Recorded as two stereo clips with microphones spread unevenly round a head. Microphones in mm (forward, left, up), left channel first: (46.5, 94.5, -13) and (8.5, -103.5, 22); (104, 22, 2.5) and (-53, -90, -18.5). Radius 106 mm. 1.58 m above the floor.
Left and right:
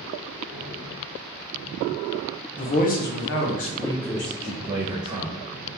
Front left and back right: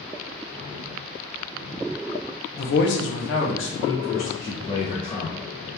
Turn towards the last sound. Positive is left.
turn(degrees=-30)